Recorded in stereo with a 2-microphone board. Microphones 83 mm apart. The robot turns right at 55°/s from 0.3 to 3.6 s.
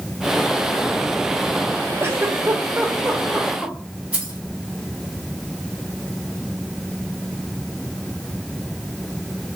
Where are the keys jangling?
20° right (ahead or behind), 2.5 m.